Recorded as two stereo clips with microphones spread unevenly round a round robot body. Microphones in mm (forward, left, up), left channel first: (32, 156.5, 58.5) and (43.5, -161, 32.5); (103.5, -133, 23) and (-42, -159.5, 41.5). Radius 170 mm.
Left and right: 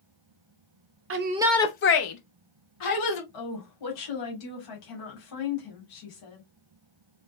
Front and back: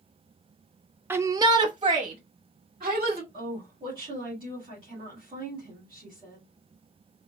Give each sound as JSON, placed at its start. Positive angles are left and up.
{"t": 1.1, "sound": "a shout", "azimuth_deg": -90, "distance_m": 0.6}
{"t": 3.3, "sound": "a woman speaking", "azimuth_deg": 115, "distance_m": 2.5}